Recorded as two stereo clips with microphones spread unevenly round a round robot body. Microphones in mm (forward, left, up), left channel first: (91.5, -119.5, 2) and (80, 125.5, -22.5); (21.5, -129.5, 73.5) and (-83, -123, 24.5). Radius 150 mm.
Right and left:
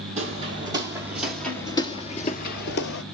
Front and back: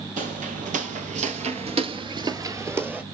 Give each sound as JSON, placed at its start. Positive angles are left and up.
{"t": 0.2, "sound": "footsteps", "azimuth_deg": 160, "distance_m": 1.4}